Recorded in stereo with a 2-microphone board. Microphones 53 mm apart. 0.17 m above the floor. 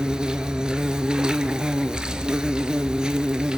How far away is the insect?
About 1.1 m.